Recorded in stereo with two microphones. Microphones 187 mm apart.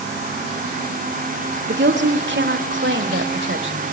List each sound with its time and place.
1.7 s a woman speaking: 60° right (ahead or behind), 1.6 m; by 3.8 s 80° right, 3 m